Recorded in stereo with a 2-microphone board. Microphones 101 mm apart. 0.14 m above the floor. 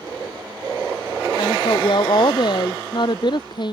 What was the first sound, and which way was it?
A woman speaking, 50° left (ahead or behind).